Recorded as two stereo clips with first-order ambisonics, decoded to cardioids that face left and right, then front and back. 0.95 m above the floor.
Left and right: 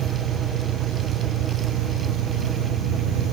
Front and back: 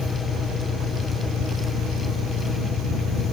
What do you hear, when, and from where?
0.0 s an engine running: 65° right